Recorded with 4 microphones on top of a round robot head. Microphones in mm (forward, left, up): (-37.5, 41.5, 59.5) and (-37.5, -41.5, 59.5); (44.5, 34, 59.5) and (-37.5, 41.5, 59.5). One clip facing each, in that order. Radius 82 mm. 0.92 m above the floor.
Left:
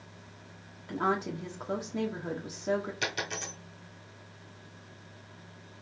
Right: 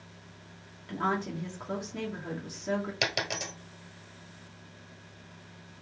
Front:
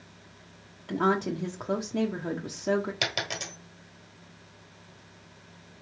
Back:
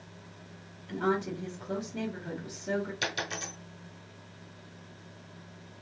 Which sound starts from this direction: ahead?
A woman speaking, at 0.9 s.